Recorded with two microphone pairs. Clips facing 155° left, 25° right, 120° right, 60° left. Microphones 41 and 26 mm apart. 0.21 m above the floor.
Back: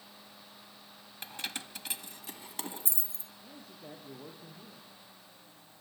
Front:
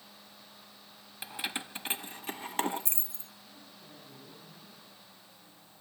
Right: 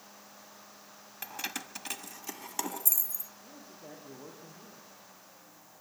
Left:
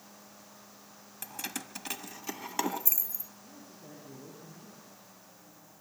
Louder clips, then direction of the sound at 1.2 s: Front 3 dB, right 2 dB; 105° right.